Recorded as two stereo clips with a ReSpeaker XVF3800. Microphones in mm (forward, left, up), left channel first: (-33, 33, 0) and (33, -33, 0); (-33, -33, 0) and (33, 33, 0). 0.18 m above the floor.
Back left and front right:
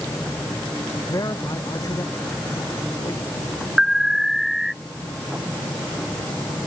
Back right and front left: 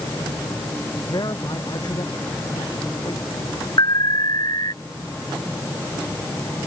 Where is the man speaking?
175° right.